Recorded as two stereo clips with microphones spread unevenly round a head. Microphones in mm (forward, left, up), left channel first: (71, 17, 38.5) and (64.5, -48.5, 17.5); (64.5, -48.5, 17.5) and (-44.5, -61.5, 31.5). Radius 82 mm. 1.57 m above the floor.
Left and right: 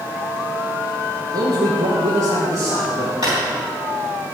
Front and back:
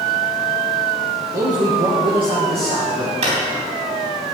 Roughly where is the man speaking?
Behind right.